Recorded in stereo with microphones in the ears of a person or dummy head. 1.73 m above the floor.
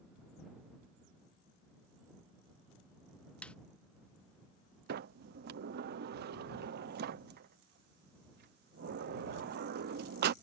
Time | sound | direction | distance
3.4 | a snare drum | 5° left (ahead or behind) | ?
4.9 | a sliding door | 60° right (ahead or behind) | ?